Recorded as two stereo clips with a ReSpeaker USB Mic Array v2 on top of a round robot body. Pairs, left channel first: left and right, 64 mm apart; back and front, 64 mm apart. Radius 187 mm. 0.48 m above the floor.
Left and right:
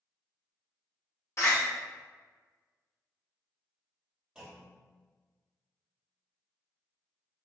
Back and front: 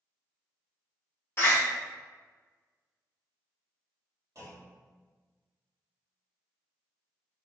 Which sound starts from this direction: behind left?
A door slam, at 1.4 s.